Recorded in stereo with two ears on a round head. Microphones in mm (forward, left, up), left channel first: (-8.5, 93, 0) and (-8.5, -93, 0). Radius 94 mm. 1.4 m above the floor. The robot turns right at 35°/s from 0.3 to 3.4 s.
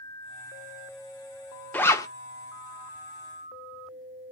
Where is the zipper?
10° left (ahead or behind), 0.5 m; by 2.1 s 15° left (ahead or behind), 0.5 m.